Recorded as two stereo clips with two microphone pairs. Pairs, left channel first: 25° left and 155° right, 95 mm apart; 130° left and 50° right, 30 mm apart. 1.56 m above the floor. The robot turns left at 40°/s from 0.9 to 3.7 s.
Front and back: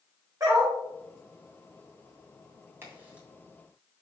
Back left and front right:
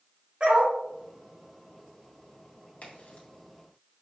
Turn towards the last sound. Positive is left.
turn(degrees=110)